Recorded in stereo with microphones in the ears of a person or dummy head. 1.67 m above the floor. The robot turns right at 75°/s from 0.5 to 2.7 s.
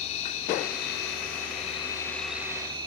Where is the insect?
50° left, 2 m; by 2.9 s 145° right, 2 m.